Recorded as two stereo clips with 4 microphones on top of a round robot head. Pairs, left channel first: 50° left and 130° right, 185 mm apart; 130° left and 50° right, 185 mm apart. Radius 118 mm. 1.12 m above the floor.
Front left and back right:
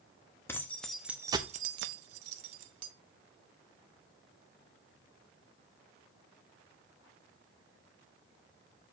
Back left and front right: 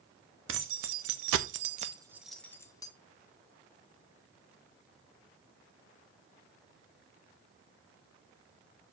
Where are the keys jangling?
30° right, 1.1 m; by 2.9 s 160° right, 1.0 m.